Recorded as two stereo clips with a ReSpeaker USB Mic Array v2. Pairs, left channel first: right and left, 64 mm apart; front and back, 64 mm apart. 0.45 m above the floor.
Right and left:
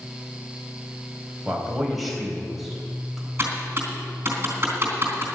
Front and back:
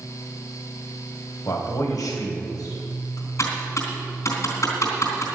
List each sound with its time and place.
1.4 s a man speaking: straight ahead, 3 m
3.4 s typing on a keyboard: 40° left, 3.5 m